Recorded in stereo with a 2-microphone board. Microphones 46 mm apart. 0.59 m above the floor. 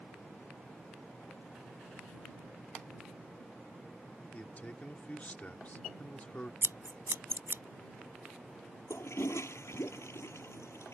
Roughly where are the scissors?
Right.